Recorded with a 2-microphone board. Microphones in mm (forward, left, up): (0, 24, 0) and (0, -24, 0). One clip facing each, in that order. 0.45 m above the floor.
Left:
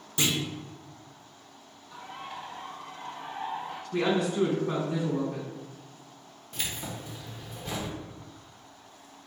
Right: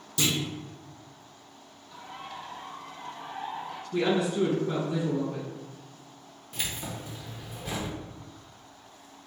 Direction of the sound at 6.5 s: 5° right (ahead or behind).